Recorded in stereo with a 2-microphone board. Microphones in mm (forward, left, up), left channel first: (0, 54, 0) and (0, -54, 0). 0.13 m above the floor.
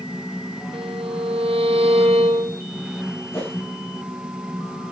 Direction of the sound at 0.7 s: 60° right (ahead or behind).